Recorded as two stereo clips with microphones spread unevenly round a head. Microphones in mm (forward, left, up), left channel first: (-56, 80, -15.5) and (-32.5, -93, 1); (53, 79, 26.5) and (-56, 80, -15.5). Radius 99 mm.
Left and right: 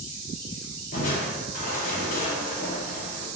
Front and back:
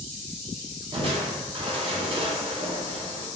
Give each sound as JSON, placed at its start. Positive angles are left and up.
{"t": 0.9, "sound": "crushing", "azimuth_deg": 145, "distance_m": 0.9}